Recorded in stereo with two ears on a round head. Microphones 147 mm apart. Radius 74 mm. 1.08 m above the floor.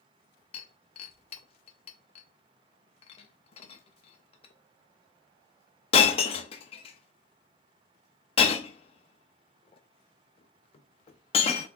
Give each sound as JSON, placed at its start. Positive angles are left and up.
{"t": 0.5, "sound": "breaking glass", "side_deg": 35, "distance_m": 0.8}